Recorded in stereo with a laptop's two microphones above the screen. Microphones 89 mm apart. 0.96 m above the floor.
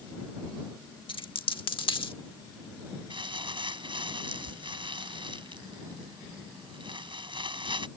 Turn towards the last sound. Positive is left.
turn(degrees=-65)  # may be behind; listen again after turning